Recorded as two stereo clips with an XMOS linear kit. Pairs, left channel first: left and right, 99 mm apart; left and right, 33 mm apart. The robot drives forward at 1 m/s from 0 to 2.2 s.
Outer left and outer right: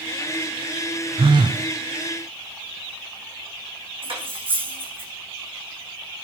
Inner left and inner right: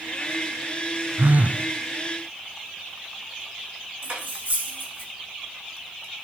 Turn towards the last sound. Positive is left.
turn(degrees=-60)  # may be behind; listen again after turning